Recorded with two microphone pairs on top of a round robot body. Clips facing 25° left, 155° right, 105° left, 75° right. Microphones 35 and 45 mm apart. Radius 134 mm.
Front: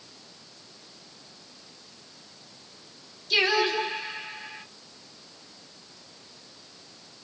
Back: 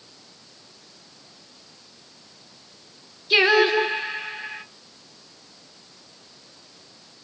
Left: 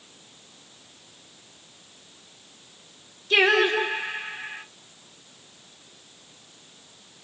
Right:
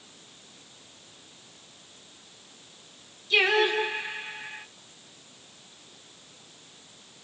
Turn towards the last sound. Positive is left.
turn(degrees=150)